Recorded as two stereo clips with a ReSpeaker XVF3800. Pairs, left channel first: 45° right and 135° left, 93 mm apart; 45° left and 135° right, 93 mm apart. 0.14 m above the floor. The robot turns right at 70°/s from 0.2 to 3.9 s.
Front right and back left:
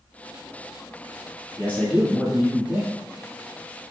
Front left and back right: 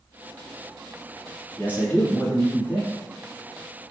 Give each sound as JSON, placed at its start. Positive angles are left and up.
{"t": 1.6, "sound": "a man speaking", "azimuth_deg": -5, "distance_m": 1.3}